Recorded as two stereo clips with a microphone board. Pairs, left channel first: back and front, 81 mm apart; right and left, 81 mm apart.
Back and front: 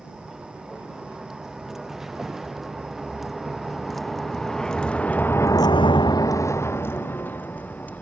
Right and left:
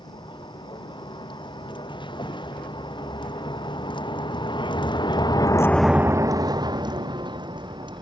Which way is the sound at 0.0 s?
85° right.